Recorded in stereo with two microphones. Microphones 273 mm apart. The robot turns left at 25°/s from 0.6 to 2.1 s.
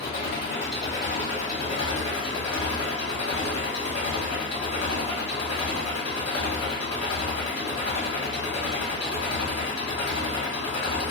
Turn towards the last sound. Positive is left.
turn(degrees=105)